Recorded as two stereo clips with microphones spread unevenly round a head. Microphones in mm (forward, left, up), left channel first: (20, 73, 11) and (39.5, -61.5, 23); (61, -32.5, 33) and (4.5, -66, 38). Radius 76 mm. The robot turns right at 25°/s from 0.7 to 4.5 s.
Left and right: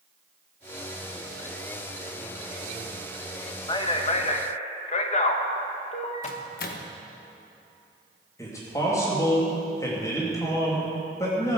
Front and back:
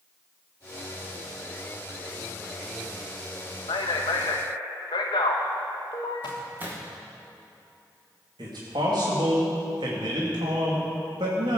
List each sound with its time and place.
3.7 s a man speaking: 40° left, 1.6 m; by 6.3 s 60° left, 1.6 m
6.2 s a microwave: 135° left, 1.1 m
8.4 s a man speaking: 170° left, 2.5 m